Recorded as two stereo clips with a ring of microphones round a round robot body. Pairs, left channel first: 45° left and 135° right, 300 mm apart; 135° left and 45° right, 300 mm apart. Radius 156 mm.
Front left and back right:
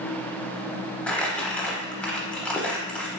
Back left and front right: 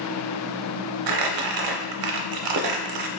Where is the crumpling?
40° right, 0.6 m.